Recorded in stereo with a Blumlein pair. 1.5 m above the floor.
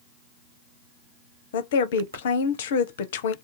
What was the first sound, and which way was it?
A woman speaking, 55° left.